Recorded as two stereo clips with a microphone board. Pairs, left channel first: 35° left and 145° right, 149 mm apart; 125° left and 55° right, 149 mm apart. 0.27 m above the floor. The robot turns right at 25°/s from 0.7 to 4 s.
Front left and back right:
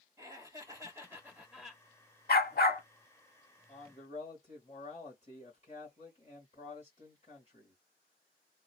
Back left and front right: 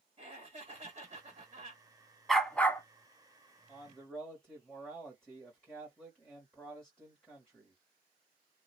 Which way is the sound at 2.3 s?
35° left.